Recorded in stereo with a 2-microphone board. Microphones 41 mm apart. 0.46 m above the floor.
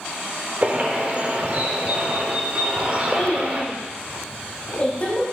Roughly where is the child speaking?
Left.